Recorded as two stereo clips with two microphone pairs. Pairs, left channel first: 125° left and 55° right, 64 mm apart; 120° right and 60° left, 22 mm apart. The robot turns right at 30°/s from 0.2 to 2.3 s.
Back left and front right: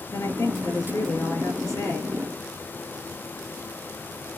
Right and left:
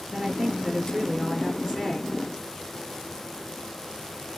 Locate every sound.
0.1 s a woman speaking: 95° left, 3 m; by 2.1 s 155° left, 3 m